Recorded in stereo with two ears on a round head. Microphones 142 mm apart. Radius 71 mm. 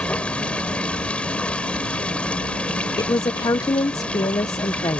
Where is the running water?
10° left (ahead or behind).